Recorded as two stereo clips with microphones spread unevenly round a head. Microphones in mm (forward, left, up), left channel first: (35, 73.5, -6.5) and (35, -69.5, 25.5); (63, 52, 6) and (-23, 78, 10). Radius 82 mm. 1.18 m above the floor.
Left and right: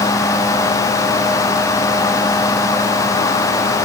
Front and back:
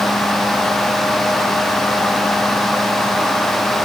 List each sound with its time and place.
Only background noise.